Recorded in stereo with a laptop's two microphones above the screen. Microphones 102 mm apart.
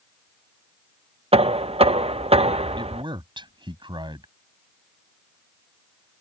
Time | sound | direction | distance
1.3 | knocking | 75° right (ahead or behind) | ?
2.8 | a man speaking | 50° right (ahead or behind) | ?